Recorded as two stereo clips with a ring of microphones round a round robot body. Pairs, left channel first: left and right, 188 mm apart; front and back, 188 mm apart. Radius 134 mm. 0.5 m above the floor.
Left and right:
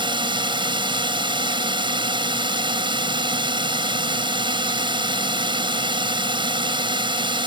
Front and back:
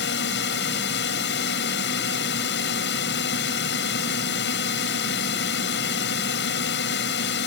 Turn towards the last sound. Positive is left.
turn(degrees=-30)